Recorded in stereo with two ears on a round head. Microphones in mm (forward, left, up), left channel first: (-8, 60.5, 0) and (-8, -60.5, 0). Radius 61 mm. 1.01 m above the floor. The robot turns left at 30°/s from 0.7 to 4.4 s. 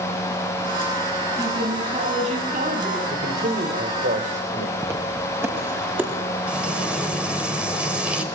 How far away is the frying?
About 5.5 m.